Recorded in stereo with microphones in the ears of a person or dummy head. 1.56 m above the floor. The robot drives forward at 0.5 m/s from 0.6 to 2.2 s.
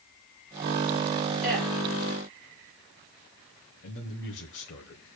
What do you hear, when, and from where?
1.4 s a woman speaking: 5° left (ahead or behind), 7 m
3.8 s a man speaking: 55° left (ahead or behind), 1.3 m